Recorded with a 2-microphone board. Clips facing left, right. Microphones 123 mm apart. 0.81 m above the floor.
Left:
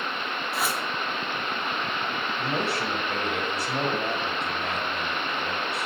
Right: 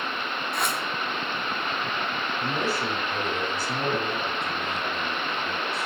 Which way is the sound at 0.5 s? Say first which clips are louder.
Even; 5° left (ahead or behind).